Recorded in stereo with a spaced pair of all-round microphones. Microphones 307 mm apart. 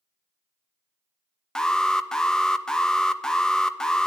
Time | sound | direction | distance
1.6 | an alarm | centre (ahead or behind) | 0.5 m